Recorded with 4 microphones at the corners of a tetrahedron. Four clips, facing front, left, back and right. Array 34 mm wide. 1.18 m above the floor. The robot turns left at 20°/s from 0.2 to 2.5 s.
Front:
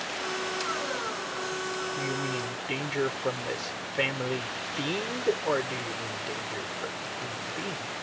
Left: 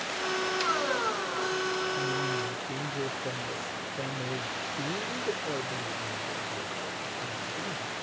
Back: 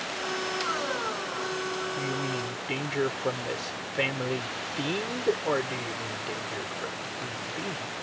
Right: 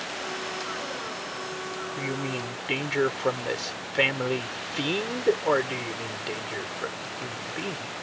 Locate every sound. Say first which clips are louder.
2.0 s a man speaking: left 1 dB, even; 80° right; by 8.0 s 90° right